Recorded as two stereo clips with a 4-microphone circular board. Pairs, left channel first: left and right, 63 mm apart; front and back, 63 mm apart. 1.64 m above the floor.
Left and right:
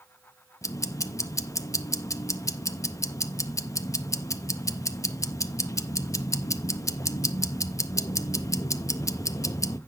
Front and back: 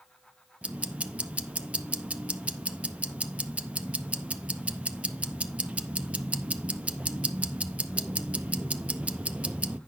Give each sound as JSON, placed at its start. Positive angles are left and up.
{"t": 0.6, "sound": "ticking", "azimuth_deg": 110, "distance_m": 0.5}